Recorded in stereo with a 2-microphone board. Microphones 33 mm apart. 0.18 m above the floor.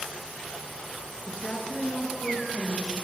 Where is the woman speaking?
20° left (ahead or behind), 2 m; by 3.0 s 55° left (ahead or behind), 3.5 m.